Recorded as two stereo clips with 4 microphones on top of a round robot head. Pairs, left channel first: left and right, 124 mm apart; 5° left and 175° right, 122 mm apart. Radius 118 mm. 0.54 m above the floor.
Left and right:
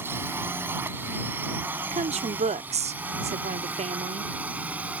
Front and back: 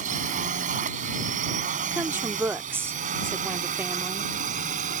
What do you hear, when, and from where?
0.0 s a drone: 165° right; by 5.0 s 170° right
1.9 s a woman speaking: 105° right